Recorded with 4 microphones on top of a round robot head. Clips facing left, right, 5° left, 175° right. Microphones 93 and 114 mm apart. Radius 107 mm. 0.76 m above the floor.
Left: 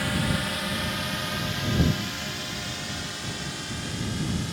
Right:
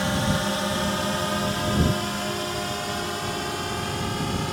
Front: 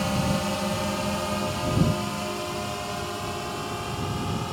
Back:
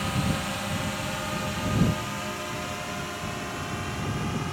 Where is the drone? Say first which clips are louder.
Right 3 dB, front 3 dB; 40° right; by 4.5 s 60° right.